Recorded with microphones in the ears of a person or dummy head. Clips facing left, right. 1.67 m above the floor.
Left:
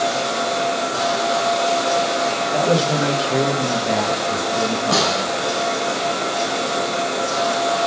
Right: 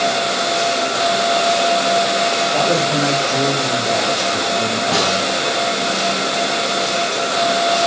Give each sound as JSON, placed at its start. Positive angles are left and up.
{"t": 2.5, "sound": "a man speaking", "side_deg": 30, "distance_m": 2.5}
{"t": 4.9, "sound": "a snare drum", "side_deg": 80, "distance_m": 5.0}